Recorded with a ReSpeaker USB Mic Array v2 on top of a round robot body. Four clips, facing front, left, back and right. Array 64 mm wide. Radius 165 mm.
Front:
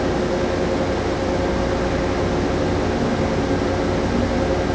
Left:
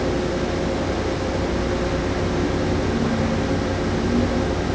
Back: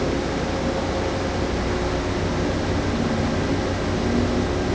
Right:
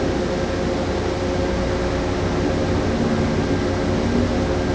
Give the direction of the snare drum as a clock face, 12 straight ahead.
I don't hear a snare drum.